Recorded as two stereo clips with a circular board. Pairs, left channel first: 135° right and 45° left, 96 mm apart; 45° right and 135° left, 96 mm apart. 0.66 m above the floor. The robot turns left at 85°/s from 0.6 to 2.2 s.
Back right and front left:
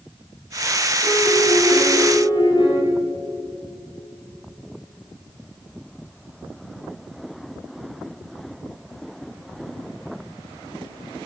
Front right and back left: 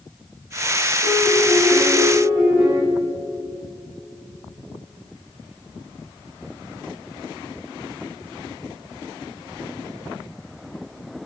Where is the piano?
70° right, 5 m; by 2.8 s 170° right, 5 m.